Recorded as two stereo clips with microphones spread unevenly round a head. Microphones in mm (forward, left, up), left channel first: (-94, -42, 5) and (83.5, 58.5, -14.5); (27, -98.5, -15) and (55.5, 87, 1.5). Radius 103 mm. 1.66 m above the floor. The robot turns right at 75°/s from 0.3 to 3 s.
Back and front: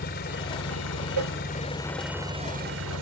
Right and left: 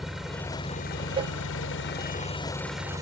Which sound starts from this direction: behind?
An engine running, at 0.0 s.